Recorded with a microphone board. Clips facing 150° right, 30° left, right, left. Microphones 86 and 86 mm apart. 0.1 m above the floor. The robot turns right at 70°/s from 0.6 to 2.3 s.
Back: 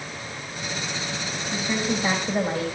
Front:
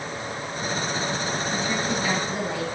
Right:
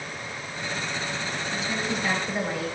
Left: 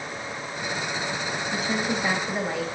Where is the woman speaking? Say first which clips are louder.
Back 4 dB, left 3 dB; 120° left, 4.5 m; by 2.6 s 175° left, 4.5 m.